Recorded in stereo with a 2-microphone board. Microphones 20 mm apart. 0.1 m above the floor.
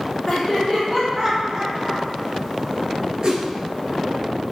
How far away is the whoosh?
About 1.0 m.